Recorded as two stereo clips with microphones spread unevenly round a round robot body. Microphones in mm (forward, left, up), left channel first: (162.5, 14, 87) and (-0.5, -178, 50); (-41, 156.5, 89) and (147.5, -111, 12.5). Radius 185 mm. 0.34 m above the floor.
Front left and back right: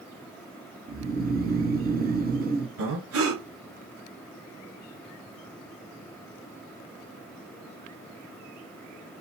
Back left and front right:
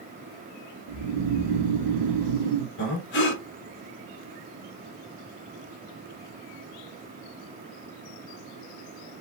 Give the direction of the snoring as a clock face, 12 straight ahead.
2 o'clock.